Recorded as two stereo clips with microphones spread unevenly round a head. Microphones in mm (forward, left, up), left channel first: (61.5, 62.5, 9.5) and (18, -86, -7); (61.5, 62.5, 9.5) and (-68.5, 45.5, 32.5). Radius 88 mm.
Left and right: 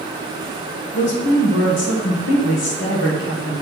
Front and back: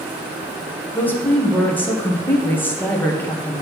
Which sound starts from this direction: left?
A woman speaking, at 0.9 s.